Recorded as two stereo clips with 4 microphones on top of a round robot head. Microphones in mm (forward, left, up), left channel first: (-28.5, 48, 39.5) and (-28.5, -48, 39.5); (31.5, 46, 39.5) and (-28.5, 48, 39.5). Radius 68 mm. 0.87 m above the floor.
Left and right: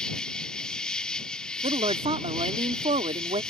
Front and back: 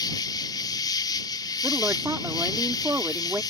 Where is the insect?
5° left.